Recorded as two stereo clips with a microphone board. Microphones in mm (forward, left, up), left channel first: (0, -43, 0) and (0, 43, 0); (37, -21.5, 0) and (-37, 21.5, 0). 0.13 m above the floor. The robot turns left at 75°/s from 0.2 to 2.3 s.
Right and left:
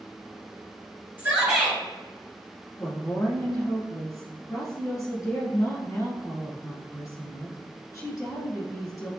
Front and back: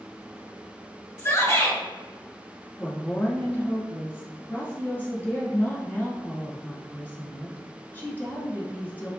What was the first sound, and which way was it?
A shout, 25° left.